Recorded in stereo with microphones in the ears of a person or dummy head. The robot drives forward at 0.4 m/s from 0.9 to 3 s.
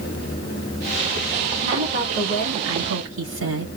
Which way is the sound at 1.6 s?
85° right.